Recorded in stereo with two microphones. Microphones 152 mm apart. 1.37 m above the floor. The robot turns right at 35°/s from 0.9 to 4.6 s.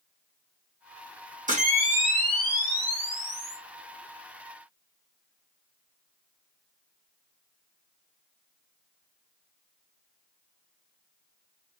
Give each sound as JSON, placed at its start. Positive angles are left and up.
{"t": 1.5, "sound": "a camera shutter", "azimuth_deg": -65, "distance_m": 1.1}